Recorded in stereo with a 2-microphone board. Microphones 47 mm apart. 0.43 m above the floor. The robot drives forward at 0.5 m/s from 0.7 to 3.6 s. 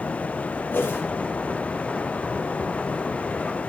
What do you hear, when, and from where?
0.7 s a whoosh: 45° left (ahead or behind), 3.5 m